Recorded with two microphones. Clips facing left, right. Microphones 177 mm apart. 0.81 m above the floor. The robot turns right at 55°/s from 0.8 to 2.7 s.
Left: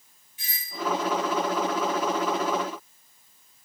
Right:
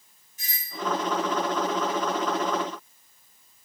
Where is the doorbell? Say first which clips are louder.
Right 1 dB; 40° right (ahead or behind), 5.5 m.